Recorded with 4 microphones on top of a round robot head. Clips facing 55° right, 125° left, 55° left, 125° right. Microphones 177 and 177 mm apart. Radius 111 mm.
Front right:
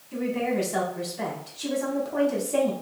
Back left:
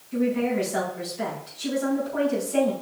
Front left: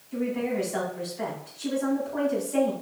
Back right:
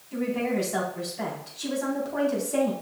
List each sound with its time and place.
0.1 s a woman speaking: 85° right, 4 m